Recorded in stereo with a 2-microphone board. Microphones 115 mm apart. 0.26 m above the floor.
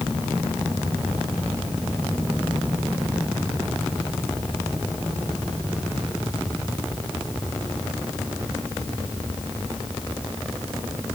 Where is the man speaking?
I don't hear a man speaking.